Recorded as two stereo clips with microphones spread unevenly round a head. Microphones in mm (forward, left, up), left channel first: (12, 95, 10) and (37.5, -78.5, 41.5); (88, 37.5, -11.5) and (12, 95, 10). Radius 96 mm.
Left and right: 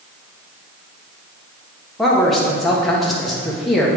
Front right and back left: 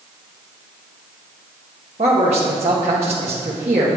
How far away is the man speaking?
About 1.0 m.